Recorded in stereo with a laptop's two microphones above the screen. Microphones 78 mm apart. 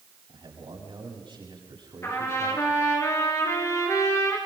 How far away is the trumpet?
About 6 m.